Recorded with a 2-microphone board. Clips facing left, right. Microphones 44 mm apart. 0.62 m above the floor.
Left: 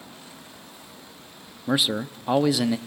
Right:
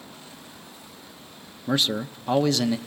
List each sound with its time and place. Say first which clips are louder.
1.7 s a man speaking: left 1 dB; 10° left (ahead or behind), 0.5 m